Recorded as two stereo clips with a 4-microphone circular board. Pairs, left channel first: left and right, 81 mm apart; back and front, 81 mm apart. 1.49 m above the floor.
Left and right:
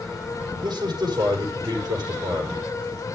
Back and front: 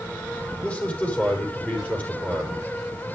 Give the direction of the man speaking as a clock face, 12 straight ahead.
4 o'clock.